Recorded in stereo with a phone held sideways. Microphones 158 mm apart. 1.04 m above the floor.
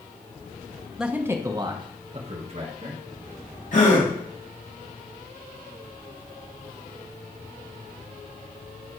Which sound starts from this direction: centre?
A man speaking, at 1.0 s.